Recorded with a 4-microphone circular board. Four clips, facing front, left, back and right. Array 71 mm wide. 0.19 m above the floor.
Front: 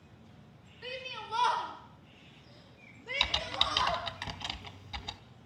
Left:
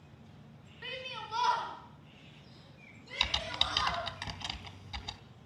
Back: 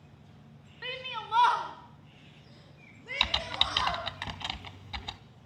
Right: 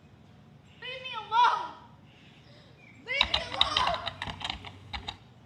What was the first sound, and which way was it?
A shout, 160° right.